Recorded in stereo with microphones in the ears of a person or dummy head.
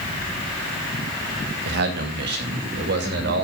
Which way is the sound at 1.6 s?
60° right (ahead or behind).